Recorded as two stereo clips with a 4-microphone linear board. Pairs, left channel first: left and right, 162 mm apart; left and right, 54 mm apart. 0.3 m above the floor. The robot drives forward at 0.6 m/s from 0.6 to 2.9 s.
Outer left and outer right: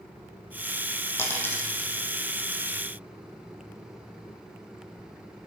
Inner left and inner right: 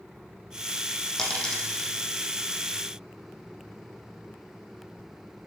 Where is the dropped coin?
15° left (ahead or behind), 2.5 m; by 1.9 s 10° left (ahead or behind), 3 m.